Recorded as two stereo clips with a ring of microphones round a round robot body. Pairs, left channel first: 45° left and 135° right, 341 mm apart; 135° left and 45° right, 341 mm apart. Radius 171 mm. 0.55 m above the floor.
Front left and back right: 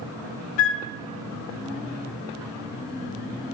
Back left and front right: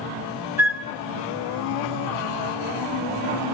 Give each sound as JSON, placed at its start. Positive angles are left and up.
{"t": 0.6, "sound": "a flute", "azimuth_deg": 40, "distance_m": 2.0}